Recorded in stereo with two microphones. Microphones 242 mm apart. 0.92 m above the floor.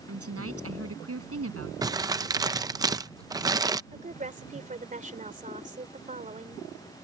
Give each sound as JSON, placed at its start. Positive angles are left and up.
{"t": 0.1, "sound": "a woman speaking", "side_deg": -70}
{"t": 1.8, "sound": "crumpling", "side_deg": -15}
{"t": 3.9, "sound": "a woman speaking", "side_deg": -30}